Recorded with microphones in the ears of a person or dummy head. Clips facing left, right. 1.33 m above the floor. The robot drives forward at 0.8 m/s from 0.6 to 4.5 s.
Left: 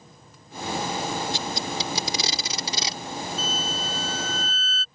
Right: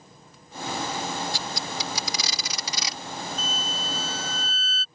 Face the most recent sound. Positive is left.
turn(degrees=65)  # may be behind; listen again after turning